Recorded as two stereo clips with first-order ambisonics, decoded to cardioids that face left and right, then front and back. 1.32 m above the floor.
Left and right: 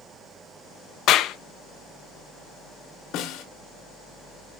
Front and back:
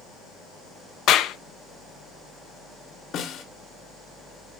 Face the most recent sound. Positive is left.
turn(degrees=50)